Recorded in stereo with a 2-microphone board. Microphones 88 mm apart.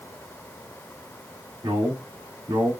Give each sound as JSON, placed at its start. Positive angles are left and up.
{"t": 1.6, "sound": "a man speaking", "side_deg": -75, "distance_m": 1.8}